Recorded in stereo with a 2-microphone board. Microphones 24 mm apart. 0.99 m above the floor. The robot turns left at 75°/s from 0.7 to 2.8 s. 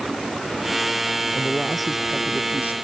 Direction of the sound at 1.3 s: 35° left.